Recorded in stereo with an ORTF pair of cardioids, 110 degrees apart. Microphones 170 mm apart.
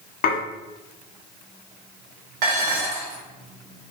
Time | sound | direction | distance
0.2 | dishes clattering | 60° left | 2 m
2.4 | dishes clattering | 65° right | 2.5 m